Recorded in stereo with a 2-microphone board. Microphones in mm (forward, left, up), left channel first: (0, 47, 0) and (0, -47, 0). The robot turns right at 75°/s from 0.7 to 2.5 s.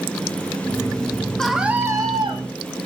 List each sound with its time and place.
1.4 s a scream: 175° left, 3 m; by 2.4 s 110° right, 3 m